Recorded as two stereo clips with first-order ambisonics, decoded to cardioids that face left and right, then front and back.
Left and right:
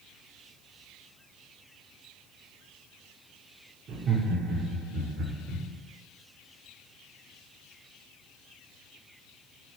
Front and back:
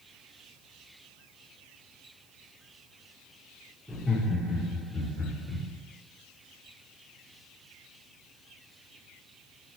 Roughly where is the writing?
I don't hear writing.